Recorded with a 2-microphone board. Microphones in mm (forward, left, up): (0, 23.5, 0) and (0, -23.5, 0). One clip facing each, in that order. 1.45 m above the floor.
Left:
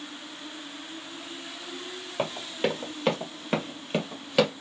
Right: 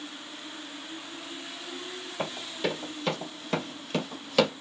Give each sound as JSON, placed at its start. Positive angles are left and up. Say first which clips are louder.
{"t": 2.2, "sound": "running footsteps", "louder": "left 3 dB", "side_deg": 45, "distance_m": 2.5}